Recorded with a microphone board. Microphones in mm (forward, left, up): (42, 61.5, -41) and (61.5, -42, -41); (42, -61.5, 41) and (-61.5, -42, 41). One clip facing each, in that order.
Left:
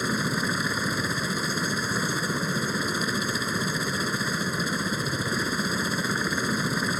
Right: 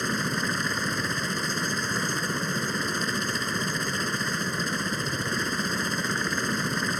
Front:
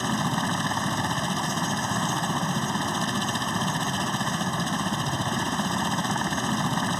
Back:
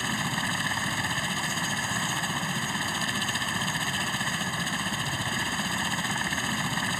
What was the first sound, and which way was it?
A helicopter, 25° left.